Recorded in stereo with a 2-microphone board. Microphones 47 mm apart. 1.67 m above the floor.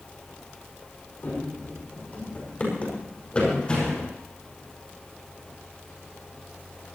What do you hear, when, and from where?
1.2 s running footsteps: 45° left (ahead or behind), 5.5 m; by 4.1 s 20° left (ahead or behind), 6.5 m